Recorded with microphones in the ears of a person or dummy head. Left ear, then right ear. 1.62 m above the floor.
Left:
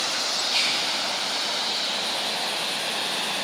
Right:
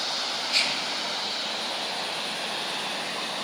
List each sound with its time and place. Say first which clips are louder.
0.5 s whispering: left 1 dB; 15° right (ahead or behind), 1.8 m